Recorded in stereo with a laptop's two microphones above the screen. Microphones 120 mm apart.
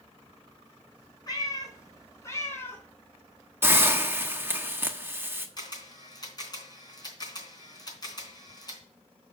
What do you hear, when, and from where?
1.3 s a cat meowing: 35° left (ahead or behind), 3 m; by 2.8 s 15° left (ahead or behind), 3 m
3.6 s a hiss: 20° right (ahead or behind), 1.2 m
5.6 s a camera shutter: 35° left (ahead or behind), 3.5 m